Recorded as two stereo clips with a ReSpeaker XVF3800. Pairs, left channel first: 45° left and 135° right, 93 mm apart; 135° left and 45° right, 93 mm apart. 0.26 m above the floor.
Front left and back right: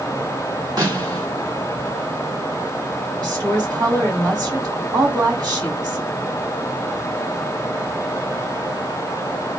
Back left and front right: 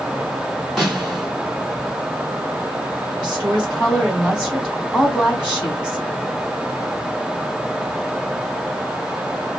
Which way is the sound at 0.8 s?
130° right.